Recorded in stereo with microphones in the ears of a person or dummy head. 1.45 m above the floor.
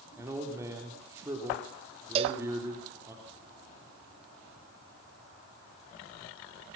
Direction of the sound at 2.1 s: 35° right (ahead or behind).